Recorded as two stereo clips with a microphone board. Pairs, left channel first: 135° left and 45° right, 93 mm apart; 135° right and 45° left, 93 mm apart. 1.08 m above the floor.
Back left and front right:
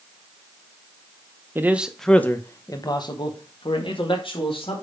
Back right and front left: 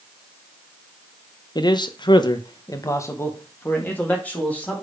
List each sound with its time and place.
1.6 s a man speaking: 105° right, 0.9 m; by 4.8 s 150° left, 2.5 m